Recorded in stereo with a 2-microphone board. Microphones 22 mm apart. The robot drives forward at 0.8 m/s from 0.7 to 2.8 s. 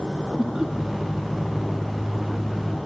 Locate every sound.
0.4 s laughter: 35° right (ahead or behind), 1.0 m